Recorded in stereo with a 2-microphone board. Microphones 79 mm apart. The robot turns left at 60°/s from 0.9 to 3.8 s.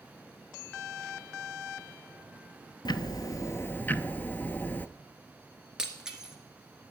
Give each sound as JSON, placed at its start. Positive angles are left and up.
{"t": 2.9, "sound": "ticking", "azimuth_deg": 80, "distance_m": 0.5}
{"t": 5.8, "sound": "breaking glass", "side_deg": -10, "distance_m": 1.5}